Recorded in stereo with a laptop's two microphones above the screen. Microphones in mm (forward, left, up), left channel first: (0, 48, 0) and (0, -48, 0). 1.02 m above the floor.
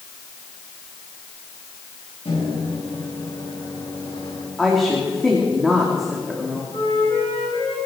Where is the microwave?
85° left, 5.5 m.